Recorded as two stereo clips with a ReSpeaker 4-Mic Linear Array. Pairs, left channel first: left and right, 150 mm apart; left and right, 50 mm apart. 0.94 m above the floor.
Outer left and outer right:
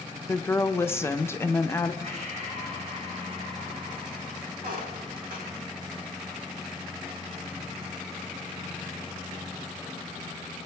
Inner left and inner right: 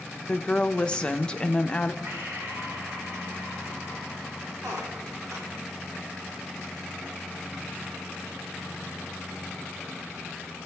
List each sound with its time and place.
0.3 s a woman speaking: 15° left (ahead or behind), 0.5 m
2.0 s breathing: 50° right (ahead or behind), 3.5 m
4.6 s a squeak: 70° right (ahead or behind), 1.5 m